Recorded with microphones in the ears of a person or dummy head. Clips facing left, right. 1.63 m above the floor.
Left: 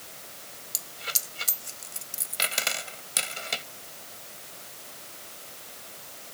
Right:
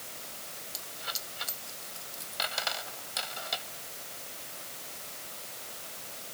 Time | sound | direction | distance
0.7 | a dropped coin | 35° left (ahead or behind) | ?